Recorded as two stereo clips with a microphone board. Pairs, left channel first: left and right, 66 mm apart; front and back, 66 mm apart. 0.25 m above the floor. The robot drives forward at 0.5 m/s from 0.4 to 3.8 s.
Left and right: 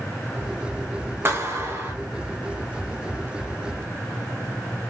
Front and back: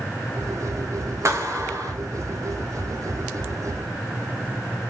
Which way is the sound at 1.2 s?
140° right.